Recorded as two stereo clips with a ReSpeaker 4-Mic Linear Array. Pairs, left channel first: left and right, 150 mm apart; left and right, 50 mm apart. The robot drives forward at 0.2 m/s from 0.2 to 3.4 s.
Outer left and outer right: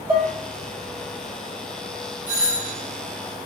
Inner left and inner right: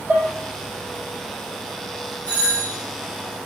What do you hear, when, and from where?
0.1 s dishes clattering: 35° right (ahead or behind), 1.3 m
2.3 s a doorbell: 25° left (ahead or behind), 1.6 m